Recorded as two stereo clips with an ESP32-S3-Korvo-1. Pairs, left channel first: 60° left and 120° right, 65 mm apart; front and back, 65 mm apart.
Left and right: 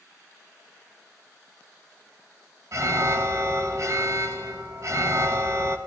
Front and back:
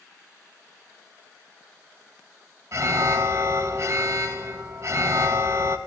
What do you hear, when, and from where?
2.7 s an alarm: 150° right, 1.1 m